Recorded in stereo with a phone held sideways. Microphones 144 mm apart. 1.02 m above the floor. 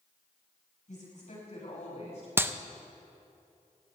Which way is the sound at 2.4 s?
15° right (ahead or behind).